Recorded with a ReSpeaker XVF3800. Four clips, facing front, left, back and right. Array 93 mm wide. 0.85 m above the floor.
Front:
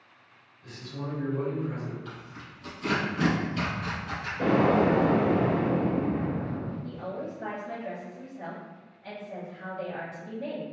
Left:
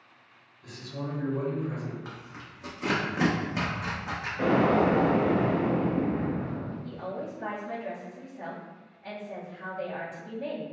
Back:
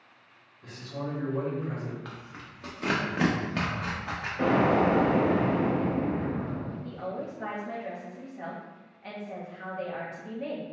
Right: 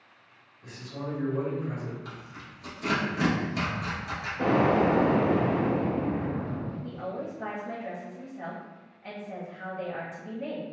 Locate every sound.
0.6 s a man speaking: 150° right, 1.1 m
2.0 s tearing paper: 155° left, 0.7 m
4.4 s an explosion: 145° left, 1.9 m
6.8 s a woman speaking: 150° right, 1.2 m